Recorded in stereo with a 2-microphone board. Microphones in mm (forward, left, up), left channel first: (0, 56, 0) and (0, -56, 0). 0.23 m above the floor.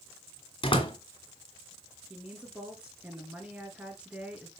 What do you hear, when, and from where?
0.6 s a door slam: 50° left (ahead or behind), 2.0 m
2.1 s a woman speaking: 10° right (ahead or behind), 3 m